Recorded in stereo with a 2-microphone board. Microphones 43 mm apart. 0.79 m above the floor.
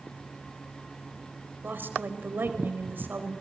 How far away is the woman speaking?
About 4.5 m.